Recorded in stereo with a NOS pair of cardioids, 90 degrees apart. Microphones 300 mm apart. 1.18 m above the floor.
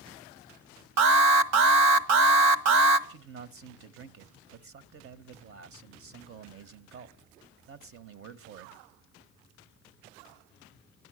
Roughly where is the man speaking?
Ahead right.